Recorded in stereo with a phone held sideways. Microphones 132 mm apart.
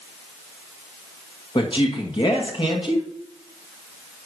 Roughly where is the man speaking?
Left.